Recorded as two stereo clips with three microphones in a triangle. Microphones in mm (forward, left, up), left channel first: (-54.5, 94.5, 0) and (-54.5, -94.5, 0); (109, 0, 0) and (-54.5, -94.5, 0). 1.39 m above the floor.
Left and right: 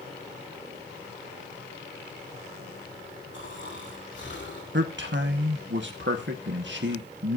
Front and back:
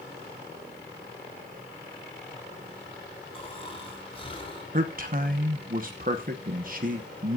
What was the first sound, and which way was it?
Snoring, 90° left.